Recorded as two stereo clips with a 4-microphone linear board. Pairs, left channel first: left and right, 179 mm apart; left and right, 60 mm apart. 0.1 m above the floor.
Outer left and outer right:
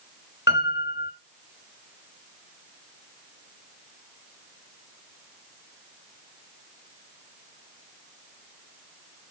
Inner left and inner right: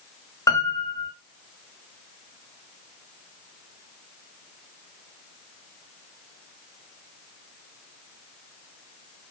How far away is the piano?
About 5.5 m.